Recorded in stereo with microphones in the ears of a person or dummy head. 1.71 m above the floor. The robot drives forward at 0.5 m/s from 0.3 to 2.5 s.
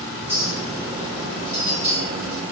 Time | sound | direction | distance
0.3 | a clink | 30° left (ahead or behind) | 0.9 m